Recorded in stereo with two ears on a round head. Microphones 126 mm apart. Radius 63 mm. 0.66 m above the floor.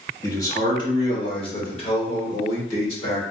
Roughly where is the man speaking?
Centre.